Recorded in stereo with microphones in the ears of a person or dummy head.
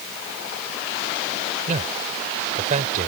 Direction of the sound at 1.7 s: 45° right (ahead or behind).